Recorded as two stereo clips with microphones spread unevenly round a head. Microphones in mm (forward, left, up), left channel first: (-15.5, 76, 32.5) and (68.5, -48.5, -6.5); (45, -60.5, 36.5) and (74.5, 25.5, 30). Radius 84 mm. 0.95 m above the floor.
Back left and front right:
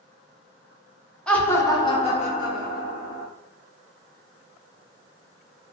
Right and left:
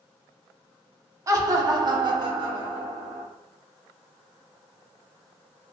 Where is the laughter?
30° left, 0.9 m; by 3.2 s 105° left, 1.3 m.